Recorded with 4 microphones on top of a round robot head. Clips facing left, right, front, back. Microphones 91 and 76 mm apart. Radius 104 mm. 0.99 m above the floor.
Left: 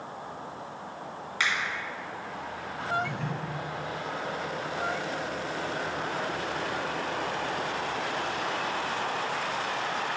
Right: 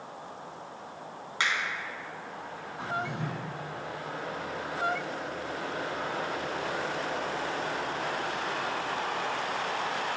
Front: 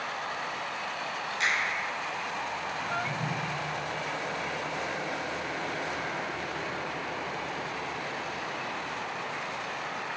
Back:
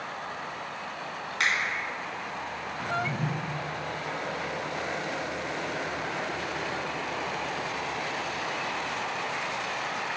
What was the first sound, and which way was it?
A finger snap, 150° right.